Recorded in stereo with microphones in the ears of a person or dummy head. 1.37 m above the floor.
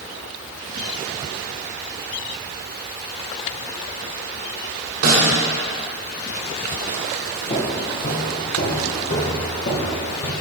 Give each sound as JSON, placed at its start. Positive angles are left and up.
{"t": 5.0, "sound": "a snare drum", "side_deg": -70, "distance_m": 2.0}
{"t": 7.5, "sound": "footsteps", "side_deg": 25, "distance_m": 1.5}